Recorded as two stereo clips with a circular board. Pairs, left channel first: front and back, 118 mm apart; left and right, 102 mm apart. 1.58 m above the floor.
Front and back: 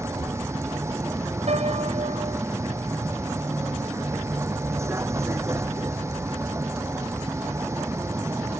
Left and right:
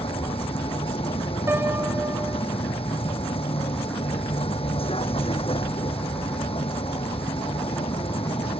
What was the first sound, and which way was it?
A vehicle, 115° left.